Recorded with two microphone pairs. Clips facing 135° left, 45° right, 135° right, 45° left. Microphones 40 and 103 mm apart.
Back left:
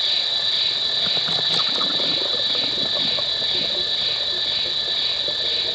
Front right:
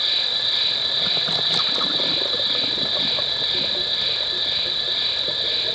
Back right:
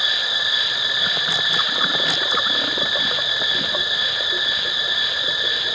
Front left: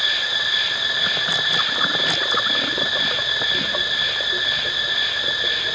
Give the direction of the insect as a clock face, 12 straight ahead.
3 o'clock.